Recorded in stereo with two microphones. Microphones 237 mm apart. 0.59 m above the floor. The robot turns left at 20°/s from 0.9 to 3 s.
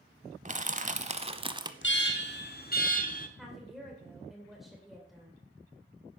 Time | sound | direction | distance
0.5 | crushing | 30° right (ahead or behind) | 0.7 m
1.8 | an alarm | 55° left (ahead or behind) | 1.2 m
3.4 | a woman speaking | centre (ahead or behind) | 2.5 m